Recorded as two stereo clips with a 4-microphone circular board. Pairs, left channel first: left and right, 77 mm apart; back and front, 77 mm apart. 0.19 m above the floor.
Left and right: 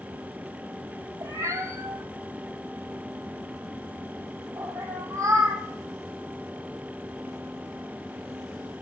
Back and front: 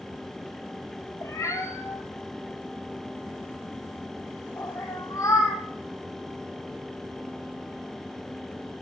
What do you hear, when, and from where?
1.2 s a cat meowing: 135° right, 0.8 m